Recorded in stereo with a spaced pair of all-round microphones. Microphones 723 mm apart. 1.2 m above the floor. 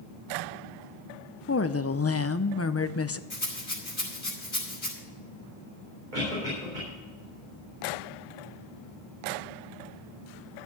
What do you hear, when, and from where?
1.5 s a woman speaking: 20° left (ahead or behind), 0.5 m
3.3 s a rattle: 40° left (ahead or behind), 3 m
6.1 s a cough: 80° right, 3.5 m